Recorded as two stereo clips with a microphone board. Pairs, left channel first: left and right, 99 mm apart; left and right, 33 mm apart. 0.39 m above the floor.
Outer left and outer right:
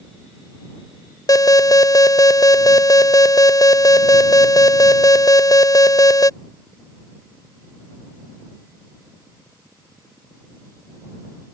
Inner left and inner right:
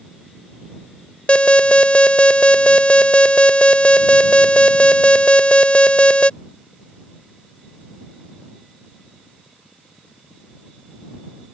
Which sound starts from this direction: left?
An alarm, at 1.3 s.